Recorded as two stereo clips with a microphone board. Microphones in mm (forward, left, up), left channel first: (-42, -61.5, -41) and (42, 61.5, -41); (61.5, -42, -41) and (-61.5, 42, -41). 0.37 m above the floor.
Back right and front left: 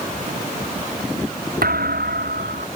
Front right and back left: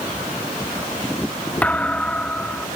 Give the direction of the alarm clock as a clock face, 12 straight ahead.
No alarm clock in this recording.